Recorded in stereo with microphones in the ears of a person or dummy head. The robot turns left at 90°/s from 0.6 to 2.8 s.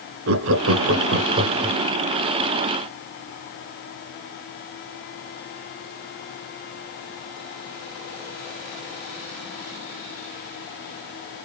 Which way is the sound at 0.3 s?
75° right (ahead or behind).